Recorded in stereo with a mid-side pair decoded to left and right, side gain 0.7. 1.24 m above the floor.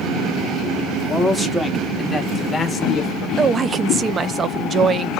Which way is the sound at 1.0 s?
10° right.